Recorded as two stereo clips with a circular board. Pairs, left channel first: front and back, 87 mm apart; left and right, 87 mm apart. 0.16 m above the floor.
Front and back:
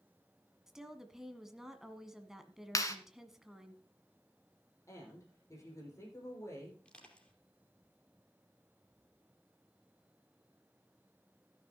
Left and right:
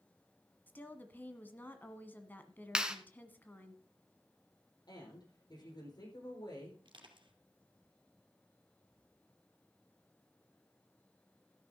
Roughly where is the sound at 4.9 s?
Ahead left.